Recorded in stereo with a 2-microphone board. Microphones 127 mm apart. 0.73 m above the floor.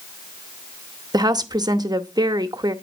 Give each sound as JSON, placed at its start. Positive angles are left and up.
{"t": 1.1, "sound": "a woman speaking", "side_deg": -30, "distance_m": 0.7}